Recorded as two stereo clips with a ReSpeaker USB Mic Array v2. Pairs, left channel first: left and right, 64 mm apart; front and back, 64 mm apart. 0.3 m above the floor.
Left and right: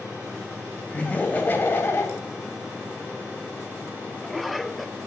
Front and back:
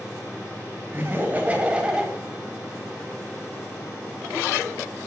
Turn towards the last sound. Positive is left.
turn(degrees=105)